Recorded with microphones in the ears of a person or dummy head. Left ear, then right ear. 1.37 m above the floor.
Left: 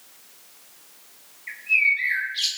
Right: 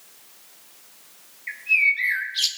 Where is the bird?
15° right (ahead or behind), 2 m.